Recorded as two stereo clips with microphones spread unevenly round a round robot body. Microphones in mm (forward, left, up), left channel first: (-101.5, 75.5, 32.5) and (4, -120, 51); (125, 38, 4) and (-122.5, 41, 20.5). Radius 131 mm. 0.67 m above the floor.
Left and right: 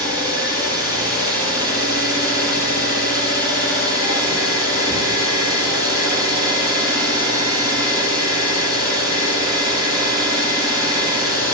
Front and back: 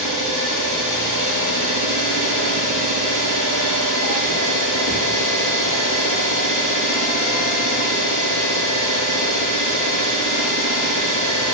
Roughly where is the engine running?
Behind right.